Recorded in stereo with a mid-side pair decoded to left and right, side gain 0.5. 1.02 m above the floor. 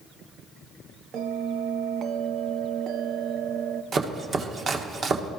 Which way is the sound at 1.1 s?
65° right.